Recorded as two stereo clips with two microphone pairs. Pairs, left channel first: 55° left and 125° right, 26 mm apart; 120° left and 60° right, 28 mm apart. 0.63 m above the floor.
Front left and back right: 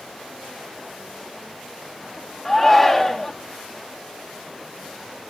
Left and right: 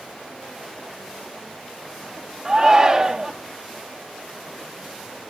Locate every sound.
2.5 s a shout: 15° right, 0.8 m